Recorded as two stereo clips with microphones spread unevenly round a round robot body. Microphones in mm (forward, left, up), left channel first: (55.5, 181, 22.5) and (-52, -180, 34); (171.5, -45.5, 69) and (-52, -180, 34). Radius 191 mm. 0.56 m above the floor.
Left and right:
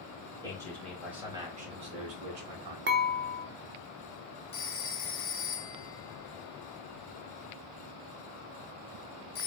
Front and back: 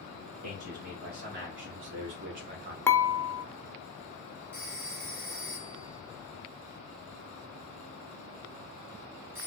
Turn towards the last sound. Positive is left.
turn(degrees=140)